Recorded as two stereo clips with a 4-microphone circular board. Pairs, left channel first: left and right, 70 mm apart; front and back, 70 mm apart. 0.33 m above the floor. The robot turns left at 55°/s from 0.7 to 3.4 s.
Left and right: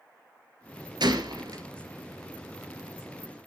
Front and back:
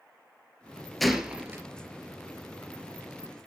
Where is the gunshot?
85° right, 1.5 m; by 1.6 s 120° right, 1.5 m.